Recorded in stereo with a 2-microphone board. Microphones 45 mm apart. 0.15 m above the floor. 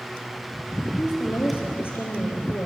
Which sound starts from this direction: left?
A woman speaking, at 1.0 s.